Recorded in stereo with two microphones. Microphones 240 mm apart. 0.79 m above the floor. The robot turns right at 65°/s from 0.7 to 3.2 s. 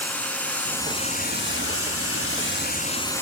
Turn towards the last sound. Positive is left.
turn(degrees=170)